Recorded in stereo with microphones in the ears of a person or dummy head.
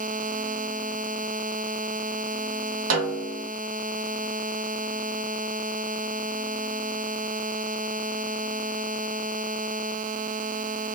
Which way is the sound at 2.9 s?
75° right (ahead or behind).